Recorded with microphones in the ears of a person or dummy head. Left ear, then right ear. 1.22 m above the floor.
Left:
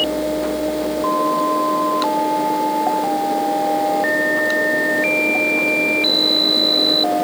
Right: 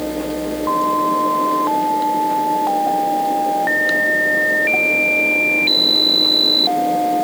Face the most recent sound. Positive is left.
No sound to turn to.